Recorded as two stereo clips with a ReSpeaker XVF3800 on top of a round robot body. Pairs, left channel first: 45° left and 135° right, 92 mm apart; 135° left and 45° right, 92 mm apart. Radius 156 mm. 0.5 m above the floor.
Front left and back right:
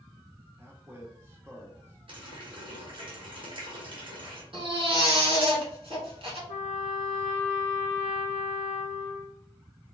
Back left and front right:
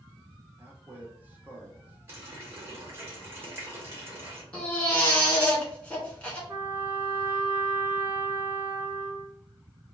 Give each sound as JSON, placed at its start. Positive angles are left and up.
{"t": 0.6, "sound": "a man speaking", "azimuth_deg": -95, "distance_m": 1.2}
{"t": 2.1, "sound": "a running tap", "azimuth_deg": -110, "distance_m": 1.6}
{"t": 4.5, "sound": "a baby crying", "azimuth_deg": -145, "distance_m": 2.0}
{"t": 6.5, "sound": "a trumpet", "azimuth_deg": 25, "distance_m": 0.5}